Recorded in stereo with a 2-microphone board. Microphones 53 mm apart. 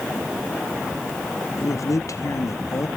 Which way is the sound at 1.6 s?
75° left (ahead or behind).